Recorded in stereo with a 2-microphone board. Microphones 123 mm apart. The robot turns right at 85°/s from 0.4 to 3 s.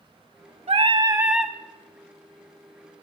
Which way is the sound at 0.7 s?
70° right.